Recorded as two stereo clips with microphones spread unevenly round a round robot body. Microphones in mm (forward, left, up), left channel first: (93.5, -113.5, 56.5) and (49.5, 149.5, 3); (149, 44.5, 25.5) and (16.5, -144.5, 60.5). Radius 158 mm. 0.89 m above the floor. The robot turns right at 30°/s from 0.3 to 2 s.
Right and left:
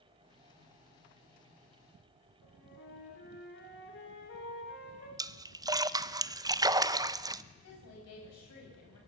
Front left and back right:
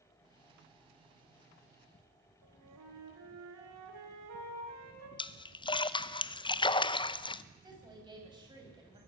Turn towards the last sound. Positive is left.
turn(degrees=-55)